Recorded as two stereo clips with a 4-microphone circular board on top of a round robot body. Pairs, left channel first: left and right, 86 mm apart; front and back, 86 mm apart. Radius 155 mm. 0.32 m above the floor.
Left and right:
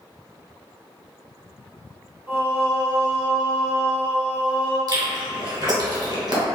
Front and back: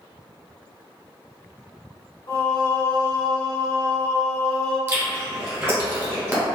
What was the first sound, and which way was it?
Singing, 30° right.